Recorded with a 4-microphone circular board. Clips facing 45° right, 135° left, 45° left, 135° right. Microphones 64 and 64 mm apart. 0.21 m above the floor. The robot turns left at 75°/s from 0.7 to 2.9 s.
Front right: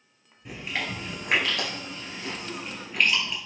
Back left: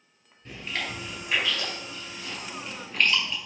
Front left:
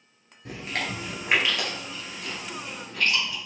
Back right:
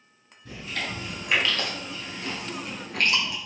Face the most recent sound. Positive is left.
turn(degrees=-130)